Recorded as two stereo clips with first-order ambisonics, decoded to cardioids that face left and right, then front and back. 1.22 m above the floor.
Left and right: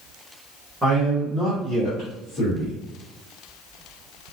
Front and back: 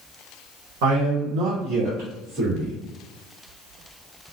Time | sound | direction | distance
0.8 | a man speaking | 170° right | 0.8 m